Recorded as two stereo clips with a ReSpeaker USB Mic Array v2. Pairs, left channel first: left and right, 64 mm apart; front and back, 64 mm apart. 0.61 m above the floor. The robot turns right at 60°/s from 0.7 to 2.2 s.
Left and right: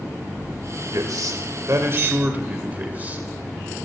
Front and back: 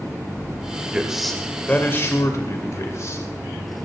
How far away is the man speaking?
About 2.5 m.